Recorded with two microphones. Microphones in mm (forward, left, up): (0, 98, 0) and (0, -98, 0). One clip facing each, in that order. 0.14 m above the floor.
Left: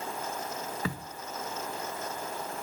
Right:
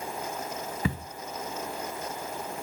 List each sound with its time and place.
0.8 s a camera shutter: 25° right (ahead or behind), 1.5 m